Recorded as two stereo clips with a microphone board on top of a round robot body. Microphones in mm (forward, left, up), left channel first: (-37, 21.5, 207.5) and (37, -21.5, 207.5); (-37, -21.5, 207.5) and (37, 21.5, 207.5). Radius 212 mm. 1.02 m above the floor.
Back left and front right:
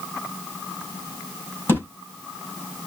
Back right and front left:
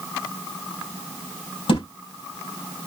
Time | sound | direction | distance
1.7 | a thud | 145° right | 3 m